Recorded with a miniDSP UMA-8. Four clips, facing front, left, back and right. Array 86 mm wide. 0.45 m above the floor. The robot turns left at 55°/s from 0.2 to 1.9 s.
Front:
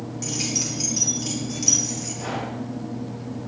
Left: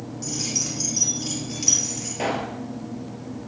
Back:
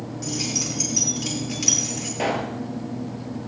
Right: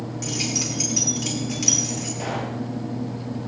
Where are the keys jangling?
70° right, 8 m; by 2.1 s 160° right, 8 m.